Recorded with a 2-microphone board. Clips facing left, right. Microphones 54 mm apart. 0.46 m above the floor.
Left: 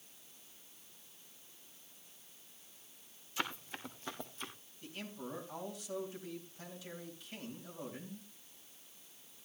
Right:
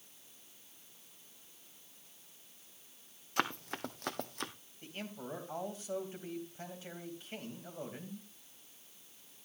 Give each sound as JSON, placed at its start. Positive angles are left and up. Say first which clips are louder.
{"t": 3.4, "sound": "running footsteps", "louder": "right 5 dB", "side_deg": -60, "distance_m": 1.4}
{"t": 4.8, "sound": "a man speaking", "louder": "right 1 dB", "side_deg": -35, "distance_m": 3.0}